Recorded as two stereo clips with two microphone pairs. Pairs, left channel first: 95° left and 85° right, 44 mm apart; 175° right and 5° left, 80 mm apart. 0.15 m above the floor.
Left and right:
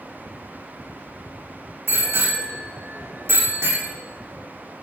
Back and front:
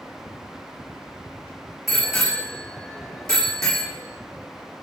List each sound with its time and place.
1.9 s a bicycle bell: 85° right, 7 m; by 3.9 s 90° right, 5.5 m